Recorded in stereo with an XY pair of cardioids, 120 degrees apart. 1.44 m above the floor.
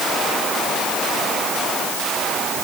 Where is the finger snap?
No finger snap in this recording.